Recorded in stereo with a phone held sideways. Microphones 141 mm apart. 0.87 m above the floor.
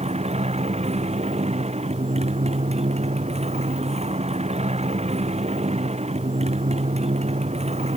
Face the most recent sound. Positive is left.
turn(degrees=-50)  # may be behind; listen again after turning